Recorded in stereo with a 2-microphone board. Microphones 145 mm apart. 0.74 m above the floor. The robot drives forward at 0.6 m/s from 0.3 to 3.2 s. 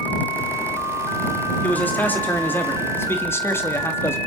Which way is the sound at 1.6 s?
10° left (ahead or behind).